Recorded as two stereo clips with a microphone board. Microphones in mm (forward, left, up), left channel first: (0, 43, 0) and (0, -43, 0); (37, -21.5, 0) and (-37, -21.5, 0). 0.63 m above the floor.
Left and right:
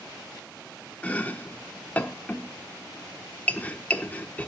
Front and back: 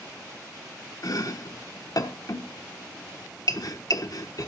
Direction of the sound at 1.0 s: 20° left.